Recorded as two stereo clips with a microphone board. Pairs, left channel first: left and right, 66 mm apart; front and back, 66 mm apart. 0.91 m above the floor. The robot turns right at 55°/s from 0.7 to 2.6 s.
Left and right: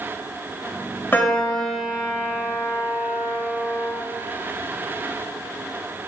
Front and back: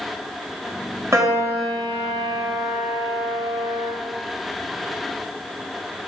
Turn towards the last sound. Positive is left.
turn(degrees=-135)